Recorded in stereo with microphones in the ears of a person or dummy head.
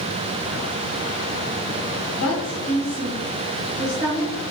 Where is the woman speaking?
45° left (ahead or behind), 1.5 m; by 4.3 s 10° right (ahead or behind), 1.7 m.